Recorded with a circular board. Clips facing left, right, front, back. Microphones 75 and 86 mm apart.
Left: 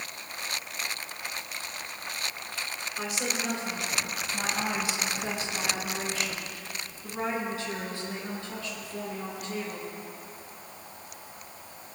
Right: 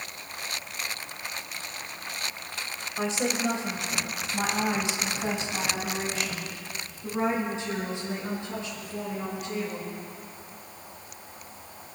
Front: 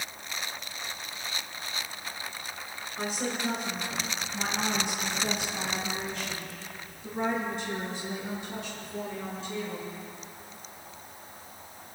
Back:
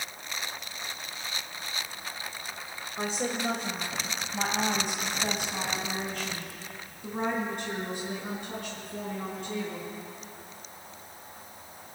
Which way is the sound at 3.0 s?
135° right.